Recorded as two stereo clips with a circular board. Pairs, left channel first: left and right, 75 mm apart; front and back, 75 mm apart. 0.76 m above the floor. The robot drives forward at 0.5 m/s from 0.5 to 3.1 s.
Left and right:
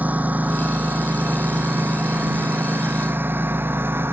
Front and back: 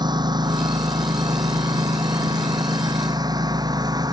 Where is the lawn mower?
160° right; by 4.1 s 150° right.